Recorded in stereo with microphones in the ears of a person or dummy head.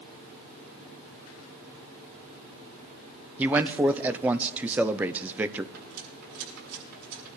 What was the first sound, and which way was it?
A man speaking, 10° right (ahead or behind).